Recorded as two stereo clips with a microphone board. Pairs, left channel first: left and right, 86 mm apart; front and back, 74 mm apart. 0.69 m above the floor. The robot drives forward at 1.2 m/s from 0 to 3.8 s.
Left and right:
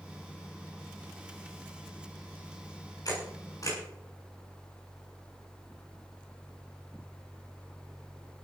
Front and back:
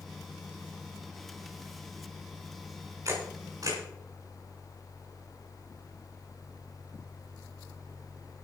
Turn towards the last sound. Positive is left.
turn(degrees=145)